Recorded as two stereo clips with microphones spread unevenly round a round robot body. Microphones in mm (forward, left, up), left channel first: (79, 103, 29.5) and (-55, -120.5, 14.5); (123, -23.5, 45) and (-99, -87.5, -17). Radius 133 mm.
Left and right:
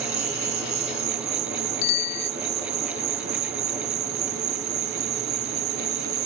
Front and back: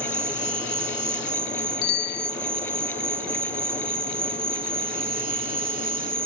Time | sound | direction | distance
0.0 | an insect | 115° right | ?
1.8 | a bicycle bell | 70° left | ?